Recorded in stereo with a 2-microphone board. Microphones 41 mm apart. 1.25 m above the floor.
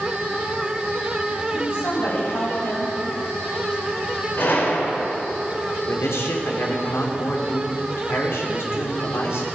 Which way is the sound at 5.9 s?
80° left.